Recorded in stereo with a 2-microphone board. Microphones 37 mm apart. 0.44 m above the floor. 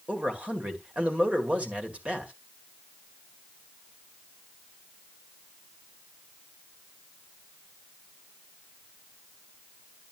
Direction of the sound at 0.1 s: 35° right (ahead or behind).